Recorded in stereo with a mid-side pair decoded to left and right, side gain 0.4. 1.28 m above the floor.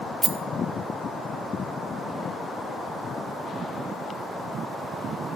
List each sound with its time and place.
0.2 s a rattle: 20° right, 0.5 m